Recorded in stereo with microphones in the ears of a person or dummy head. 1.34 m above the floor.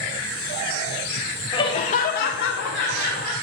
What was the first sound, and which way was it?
Laughter, 25° left (ahead or behind).